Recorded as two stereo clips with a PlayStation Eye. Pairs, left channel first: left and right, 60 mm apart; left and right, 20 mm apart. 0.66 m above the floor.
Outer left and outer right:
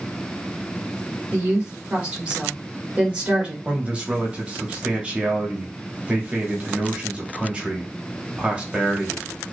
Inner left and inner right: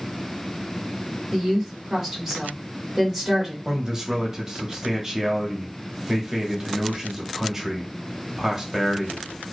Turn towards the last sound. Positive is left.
turn(degrees=-25)  # may be behind; listen again after turning